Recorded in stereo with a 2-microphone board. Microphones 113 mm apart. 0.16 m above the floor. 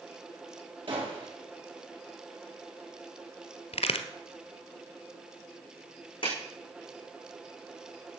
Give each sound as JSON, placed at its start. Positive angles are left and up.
{"t": 0.9, "sound": "a gunshot", "side_deg": -50, "distance_m": 4.5}
{"t": 3.7, "sound": "a crack", "side_deg": 65, "distance_m": 1.3}
{"t": 6.2, "sound": "a clap", "side_deg": 45, "distance_m": 8.0}